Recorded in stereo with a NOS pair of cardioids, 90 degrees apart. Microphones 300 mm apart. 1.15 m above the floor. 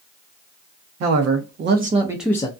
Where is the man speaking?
65° right, 0.9 m; by 2.5 s 20° left, 0.6 m.